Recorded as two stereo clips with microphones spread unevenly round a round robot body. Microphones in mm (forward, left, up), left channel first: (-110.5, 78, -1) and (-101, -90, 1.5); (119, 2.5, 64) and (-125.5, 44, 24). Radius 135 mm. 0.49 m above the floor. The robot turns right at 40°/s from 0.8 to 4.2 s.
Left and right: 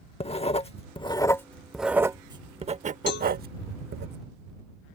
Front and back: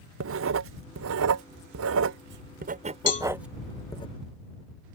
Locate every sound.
0.2 s writing: 145° left; by 4.1 s 85° right
3.1 s a cowbell: 50° left; by 3.3 s 60° left